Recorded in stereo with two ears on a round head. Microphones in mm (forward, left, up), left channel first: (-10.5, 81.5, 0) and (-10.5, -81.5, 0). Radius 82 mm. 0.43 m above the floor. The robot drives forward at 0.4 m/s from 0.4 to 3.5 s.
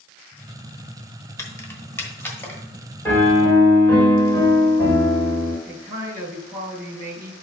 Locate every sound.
1.4 s keys jangling: 15° left (ahead or behind), 1.1 m; by 2.6 s 10° left (ahead or behind), 1.5 m
3.0 s a piano: 15° left (ahead or behind), 1.8 m
5.7 s a man speaking: 15° right (ahead or behind), 1.8 m